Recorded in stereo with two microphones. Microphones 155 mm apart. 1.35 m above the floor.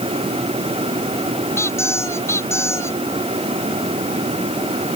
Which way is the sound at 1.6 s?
15° left (ahead or behind).